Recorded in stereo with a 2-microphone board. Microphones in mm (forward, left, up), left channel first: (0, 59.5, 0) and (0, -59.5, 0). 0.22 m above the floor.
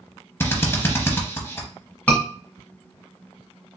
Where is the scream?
10° left (ahead or behind), 1.4 m.